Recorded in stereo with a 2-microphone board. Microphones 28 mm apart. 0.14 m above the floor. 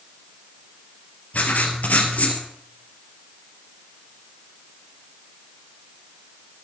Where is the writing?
65° left (ahead or behind), 2.5 m.